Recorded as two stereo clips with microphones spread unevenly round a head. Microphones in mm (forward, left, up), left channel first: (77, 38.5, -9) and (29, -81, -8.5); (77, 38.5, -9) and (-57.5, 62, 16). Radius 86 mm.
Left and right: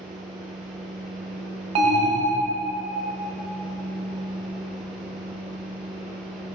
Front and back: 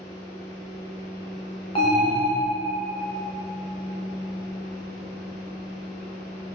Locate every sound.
0.0 s a fan: 30° right, 2 m
1.8 s an alarm: 75° right, 1.0 m